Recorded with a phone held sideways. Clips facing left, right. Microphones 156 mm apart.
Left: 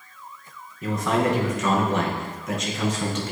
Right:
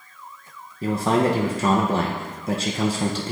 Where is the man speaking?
30° right (ahead or behind), 0.7 m.